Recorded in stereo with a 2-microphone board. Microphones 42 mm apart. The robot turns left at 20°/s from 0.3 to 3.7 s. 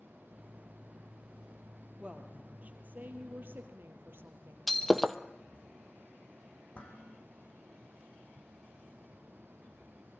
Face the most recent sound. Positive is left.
turn(degrees=30)  # may be behind; listen again after turning